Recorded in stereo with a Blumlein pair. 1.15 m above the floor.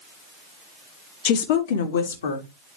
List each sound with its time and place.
1.2 s a woman speaking: 45° left, 1.1 m; by 2.5 s 70° left, 2.0 m